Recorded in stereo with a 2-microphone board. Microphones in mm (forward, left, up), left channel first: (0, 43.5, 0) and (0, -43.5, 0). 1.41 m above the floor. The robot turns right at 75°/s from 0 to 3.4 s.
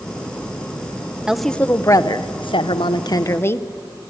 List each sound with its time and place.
1.3 s a woman speaking: 10° right, 0.9 m; by 3.7 s 150° left, 0.9 m